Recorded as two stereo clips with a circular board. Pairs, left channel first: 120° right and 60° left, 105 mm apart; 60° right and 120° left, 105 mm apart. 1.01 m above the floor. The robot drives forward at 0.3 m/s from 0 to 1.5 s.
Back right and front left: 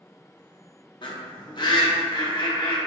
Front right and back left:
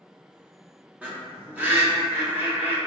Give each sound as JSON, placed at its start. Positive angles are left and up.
{"t": 1.0, "sound": "a bird", "azimuth_deg": -165, "distance_m": 0.7}